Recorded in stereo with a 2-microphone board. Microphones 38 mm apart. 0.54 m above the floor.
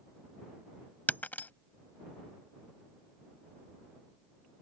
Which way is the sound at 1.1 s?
45° left (ahead or behind).